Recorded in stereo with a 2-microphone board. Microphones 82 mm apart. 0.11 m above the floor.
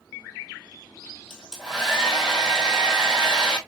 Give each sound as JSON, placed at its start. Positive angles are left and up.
{"t": 1.3, "sound": "a hair dryer", "side_deg": -5, "distance_m": 0.9}